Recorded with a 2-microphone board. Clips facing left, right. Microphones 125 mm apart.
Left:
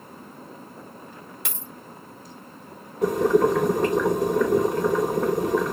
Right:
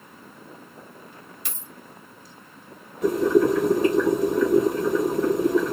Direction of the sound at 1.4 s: 80° left.